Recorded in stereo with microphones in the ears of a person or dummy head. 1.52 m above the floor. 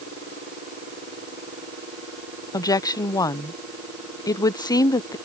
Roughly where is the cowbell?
No cowbell in this recording.